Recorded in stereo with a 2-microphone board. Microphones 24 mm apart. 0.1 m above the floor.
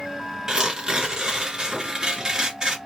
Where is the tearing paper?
25° right (ahead or behind), 1.7 m.